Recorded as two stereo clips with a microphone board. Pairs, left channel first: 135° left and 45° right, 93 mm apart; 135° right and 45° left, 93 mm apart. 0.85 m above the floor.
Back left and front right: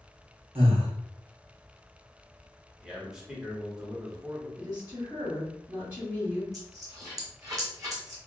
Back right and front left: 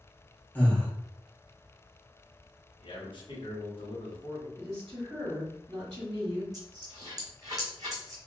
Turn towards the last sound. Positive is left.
turn(degrees=5)